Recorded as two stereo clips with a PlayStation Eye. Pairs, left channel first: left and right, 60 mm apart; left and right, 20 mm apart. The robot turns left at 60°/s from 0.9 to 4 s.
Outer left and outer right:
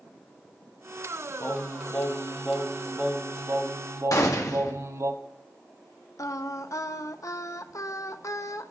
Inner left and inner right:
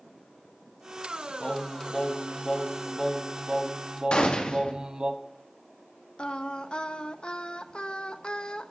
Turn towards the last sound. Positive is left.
turn(degrees=65)  # may be behind; listen again after turning